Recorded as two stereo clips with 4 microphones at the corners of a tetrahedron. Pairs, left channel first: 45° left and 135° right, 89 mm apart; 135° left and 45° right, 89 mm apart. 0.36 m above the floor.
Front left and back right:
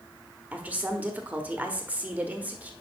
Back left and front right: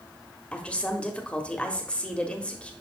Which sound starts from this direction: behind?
A woman speaking, at 0.5 s.